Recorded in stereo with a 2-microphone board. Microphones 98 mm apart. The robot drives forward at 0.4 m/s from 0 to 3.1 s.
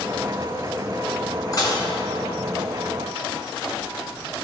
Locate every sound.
1.5 s dishes clattering: 40° left (ahead or behind), 1.5 m; by 1.9 s 45° left (ahead or behind), 1.4 m